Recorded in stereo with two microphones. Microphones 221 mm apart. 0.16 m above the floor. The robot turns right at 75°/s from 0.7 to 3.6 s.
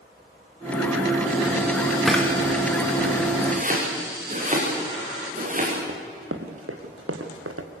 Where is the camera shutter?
Centre (ahead or behind), 4 m; by 2.2 s 10° left (ahead or behind), 4 m.